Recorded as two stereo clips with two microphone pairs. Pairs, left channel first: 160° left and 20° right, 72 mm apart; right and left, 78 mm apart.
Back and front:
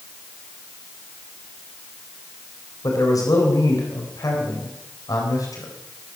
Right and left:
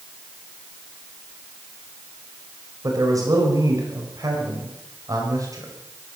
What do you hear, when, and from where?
2.8 s a man speaking: 130° left, 4 m